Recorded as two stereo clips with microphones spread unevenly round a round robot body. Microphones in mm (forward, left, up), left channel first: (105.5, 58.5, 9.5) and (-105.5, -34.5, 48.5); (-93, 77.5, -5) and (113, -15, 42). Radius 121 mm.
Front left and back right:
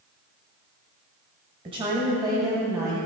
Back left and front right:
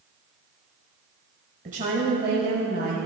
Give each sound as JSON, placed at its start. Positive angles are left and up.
{"t": 1.6, "sound": "a woman speaking", "azimuth_deg": -85, "distance_m": 1.9}